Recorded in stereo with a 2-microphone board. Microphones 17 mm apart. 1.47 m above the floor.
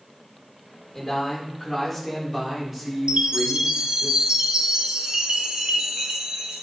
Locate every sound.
0.9 s a man speaking: 15° left (ahead or behind), 4.5 m; by 4.1 s 30° right (ahead or behind), 4 m
3.1 s a chime: 50° right (ahead or behind), 2 m